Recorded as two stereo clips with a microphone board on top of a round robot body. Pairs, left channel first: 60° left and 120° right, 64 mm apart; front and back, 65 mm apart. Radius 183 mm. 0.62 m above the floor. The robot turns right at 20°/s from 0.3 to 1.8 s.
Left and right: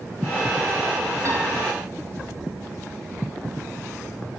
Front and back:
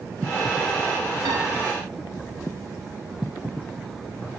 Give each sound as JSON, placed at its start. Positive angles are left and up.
{"t": 1.2, "sound": "a piano", "azimuth_deg": -165, "distance_m": 4.0}